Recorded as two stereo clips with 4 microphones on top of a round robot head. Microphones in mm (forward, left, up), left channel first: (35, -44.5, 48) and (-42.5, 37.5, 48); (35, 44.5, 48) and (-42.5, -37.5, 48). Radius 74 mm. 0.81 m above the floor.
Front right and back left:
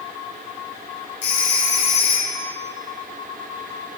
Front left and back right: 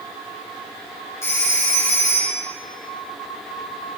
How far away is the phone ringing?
About 6.5 m.